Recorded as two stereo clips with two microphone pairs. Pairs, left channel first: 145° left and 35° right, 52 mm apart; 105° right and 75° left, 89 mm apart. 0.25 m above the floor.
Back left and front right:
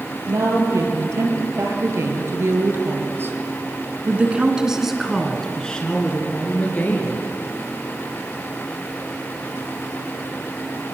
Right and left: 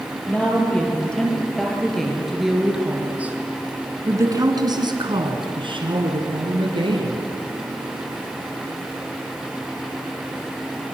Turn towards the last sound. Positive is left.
turn(degrees=95)